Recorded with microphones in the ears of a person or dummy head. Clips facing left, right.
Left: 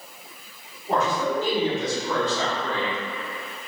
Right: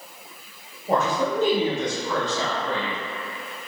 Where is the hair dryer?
No hair dryer in this recording.